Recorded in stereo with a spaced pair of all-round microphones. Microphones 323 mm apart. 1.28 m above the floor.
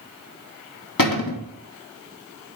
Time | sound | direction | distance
1.0 | a cupboard door | 80° left | 1.0 m